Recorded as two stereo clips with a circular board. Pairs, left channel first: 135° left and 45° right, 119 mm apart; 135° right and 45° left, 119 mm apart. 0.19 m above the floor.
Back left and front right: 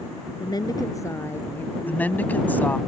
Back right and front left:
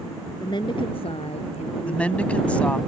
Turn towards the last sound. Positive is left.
turn(degrees=170)